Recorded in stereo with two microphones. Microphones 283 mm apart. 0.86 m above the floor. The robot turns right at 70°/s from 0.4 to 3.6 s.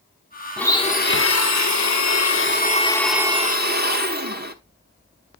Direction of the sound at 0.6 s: Straight ahead.